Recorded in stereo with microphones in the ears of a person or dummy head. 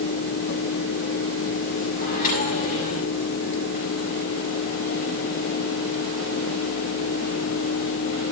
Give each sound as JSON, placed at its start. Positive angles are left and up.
{"t": 2.0, "sound": "a microwave", "side_deg": 45, "distance_m": 7.5}